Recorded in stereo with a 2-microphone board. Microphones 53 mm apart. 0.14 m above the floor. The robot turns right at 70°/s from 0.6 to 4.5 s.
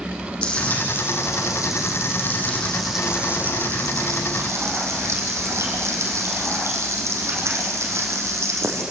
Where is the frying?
20° left, 5 m; by 8.8 s 65° right, 5 m.